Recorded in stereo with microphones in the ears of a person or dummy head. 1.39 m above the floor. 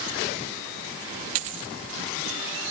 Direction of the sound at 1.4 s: 40° right (ahead or behind).